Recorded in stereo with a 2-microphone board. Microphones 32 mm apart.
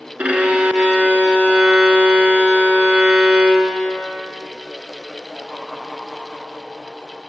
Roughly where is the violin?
Right.